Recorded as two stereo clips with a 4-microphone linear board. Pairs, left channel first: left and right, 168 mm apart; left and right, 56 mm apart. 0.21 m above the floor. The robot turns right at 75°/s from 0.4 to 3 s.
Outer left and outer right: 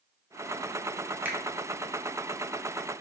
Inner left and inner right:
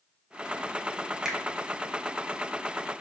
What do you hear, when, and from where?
1.2 s a finger snap: 10° right (ahead or behind), 0.8 m; by 1.4 s 15° right (ahead or behind), 0.8 m